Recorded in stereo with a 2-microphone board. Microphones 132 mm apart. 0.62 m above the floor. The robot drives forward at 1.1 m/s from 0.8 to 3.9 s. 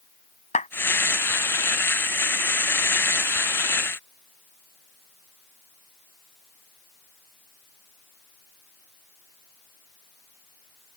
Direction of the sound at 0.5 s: 65° left (ahead or behind).